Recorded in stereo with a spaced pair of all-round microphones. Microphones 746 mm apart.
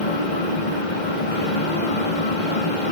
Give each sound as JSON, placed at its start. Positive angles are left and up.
{"t": 0.0, "sound": "a fan", "side_deg": 75, "distance_m": 1.9}